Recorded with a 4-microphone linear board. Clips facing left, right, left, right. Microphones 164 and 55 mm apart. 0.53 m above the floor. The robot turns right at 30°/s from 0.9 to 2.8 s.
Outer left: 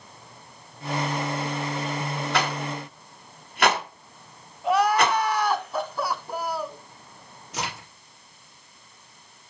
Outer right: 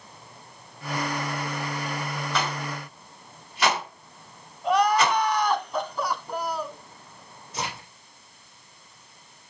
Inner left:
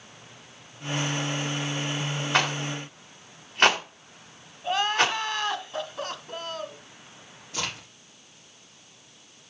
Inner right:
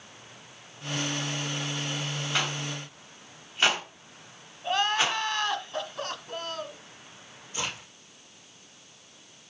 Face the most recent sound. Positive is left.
turn(degrees=70)  # may be behind; listen again after turning